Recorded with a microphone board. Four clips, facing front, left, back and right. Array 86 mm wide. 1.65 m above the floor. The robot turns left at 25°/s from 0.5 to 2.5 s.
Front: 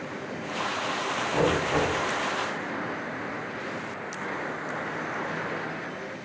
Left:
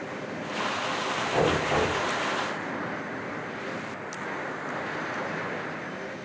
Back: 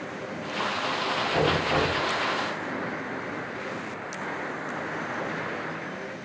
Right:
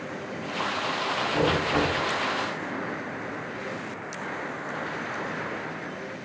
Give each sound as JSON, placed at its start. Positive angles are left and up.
{"t": 1.3, "sound": "knocking", "azimuth_deg": 140, "distance_m": 4.0}